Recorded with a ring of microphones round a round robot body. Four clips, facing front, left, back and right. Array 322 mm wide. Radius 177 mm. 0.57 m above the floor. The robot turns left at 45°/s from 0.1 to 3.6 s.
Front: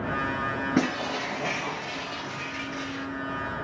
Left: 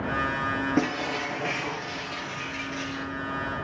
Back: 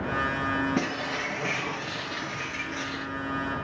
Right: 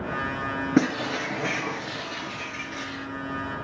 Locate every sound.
0.8 s breaking glass: 80° right, 6.5 m; by 3.1 s 175° left, 6.5 m